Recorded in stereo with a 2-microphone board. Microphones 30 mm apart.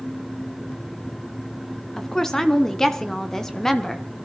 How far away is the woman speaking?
About 1.7 m.